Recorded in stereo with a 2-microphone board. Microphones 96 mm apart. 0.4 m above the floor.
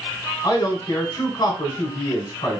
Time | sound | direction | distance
0.4 | a man speaking | 45° left (ahead or behind) | 1.9 m